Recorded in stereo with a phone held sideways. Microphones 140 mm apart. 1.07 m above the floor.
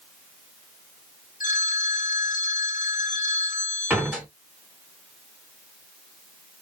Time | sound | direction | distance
1.4 | a phone ringing | 75° left (ahead or behind) | 1.7 m
3.9 | a door slam | 10° right (ahead or behind) | 2 m